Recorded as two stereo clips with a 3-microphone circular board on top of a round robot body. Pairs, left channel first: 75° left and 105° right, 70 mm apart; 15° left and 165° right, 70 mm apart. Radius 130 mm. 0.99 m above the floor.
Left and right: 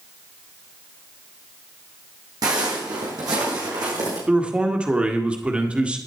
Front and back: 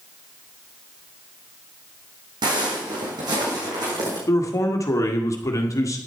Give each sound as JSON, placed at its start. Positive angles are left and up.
{"t": 2.4, "sound": "footsteps", "azimuth_deg": -140, "distance_m": 3.5}
{"t": 4.3, "sound": "a man speaking", "azimuth_deg": -30, "distance_m": 1.6}